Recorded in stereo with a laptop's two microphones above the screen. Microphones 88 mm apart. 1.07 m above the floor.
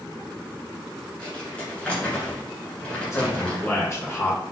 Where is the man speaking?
35° left (ahead or behind), 1.5 m.